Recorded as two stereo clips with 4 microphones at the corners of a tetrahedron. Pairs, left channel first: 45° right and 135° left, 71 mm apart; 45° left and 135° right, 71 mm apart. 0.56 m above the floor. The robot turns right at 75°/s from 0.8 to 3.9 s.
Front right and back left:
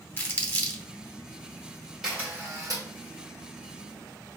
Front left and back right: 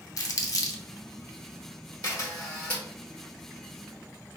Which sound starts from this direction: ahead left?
A camera shutter, at 2.0 s.